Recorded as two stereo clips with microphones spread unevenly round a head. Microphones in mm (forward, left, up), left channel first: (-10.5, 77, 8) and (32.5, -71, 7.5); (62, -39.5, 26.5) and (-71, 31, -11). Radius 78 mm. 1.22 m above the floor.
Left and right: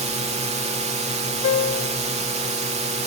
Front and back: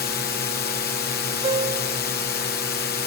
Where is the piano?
100° left.